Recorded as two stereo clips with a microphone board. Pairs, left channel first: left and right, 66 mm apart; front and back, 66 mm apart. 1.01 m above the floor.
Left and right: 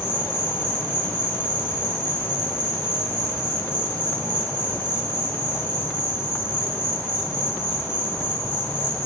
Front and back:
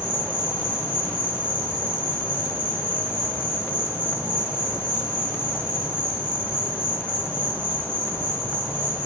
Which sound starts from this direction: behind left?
An insect, at 0.0 s.